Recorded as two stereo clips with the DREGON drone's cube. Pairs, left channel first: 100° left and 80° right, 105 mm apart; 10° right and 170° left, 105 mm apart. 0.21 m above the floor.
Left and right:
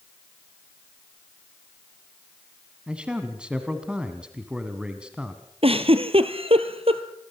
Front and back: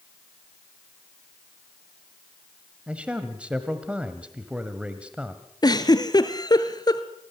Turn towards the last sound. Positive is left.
turn(degrees=-60)